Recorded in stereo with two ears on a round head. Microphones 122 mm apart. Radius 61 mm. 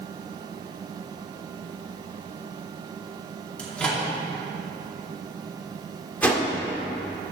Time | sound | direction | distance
3.6 | a microwave | 10° left (ahead or behind) | 2 m
6.2 | a whoosh | 10° left (ahead or behind) | 1.6 m